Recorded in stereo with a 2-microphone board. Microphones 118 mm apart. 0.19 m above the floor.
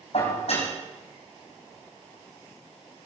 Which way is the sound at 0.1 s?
60° left (ahead or behind).